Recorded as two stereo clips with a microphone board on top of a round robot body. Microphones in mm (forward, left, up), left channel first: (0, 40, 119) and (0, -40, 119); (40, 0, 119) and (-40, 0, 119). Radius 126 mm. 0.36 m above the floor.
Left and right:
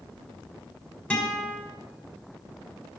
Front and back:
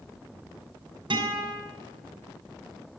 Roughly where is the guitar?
Behind.